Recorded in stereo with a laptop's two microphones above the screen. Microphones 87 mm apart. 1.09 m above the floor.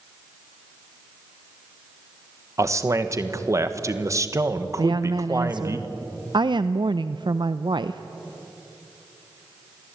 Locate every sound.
2.6 s a man speaking: 35° right (ahead or behind), 1.2 m
4.8 s a woman speaking: 60° right (ahead or behind), 0.6 m